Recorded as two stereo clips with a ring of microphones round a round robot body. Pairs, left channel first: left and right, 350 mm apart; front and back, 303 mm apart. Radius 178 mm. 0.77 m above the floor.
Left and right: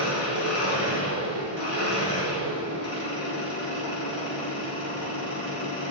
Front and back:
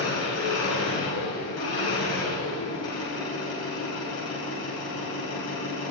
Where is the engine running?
40° left, 3.5 m.